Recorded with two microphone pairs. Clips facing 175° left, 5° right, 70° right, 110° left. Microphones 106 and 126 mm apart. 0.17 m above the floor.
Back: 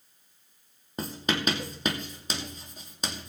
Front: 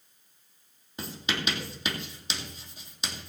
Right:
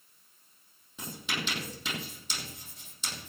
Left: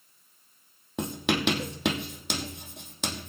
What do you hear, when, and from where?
1.0 s writing: 130° left, 2.5 m